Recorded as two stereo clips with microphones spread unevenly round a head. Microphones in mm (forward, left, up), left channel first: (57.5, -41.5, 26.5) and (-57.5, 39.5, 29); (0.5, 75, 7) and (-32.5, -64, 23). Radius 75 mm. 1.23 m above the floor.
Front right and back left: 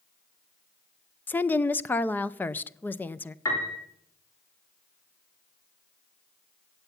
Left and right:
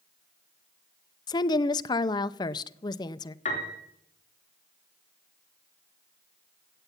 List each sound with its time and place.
1.3 s a woman speaking: 35° left, 0.6 m
3.5 s a piano: 30° left, 4 m